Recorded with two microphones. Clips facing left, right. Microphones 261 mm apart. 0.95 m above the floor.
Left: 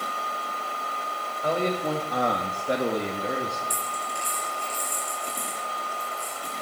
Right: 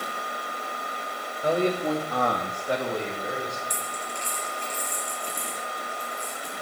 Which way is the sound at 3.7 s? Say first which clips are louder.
Even; 10° left (ahead or behind).